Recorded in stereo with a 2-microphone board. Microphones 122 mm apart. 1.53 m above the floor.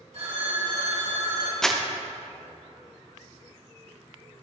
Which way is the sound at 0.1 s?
65° right (ahead or behind).